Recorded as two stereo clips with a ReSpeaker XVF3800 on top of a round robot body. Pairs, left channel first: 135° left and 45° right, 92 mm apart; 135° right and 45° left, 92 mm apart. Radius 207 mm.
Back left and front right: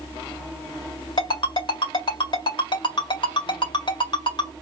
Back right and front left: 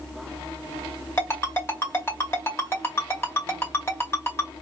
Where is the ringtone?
160° left, 2 m.